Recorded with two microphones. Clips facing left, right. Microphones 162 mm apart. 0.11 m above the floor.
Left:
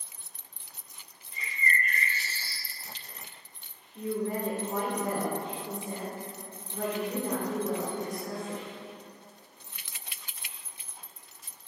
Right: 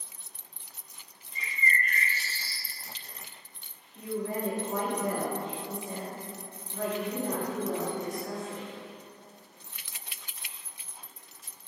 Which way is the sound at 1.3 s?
55° left (ahead or behind).